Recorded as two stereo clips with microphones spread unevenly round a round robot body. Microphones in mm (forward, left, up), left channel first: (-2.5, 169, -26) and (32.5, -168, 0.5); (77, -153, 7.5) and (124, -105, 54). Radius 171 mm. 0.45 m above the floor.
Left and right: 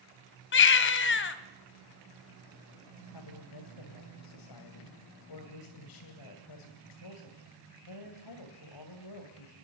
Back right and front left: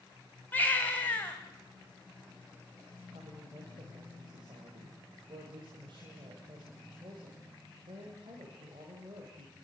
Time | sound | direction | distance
0.5 | a baby crying | 155° left | 1.1 m
3.1 | a woman speaking | 115° left | 2.5 m